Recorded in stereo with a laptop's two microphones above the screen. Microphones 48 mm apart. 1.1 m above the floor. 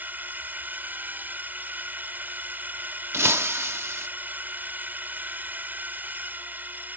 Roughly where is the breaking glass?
Right.